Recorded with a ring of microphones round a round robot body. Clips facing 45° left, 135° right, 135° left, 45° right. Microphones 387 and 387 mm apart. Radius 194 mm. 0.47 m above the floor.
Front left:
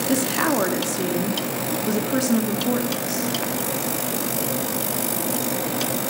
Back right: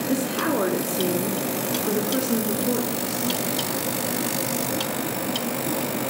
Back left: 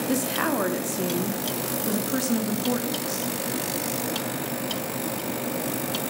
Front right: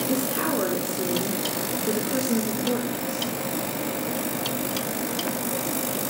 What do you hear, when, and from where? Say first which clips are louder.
0.1 s a woman speaking: front left 2 dB, even; 95° left, 0.8 m